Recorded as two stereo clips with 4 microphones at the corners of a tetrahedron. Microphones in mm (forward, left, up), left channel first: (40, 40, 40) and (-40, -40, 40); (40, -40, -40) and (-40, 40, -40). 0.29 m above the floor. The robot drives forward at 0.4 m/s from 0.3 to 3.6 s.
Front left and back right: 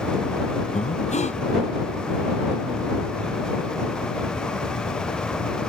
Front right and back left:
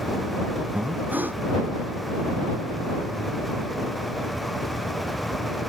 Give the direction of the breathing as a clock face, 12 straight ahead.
10 o'clock.